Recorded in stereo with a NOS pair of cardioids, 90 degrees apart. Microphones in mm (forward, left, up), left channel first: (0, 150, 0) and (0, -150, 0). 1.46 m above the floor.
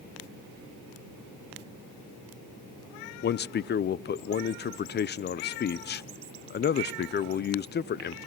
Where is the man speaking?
35° left, 0.6 m.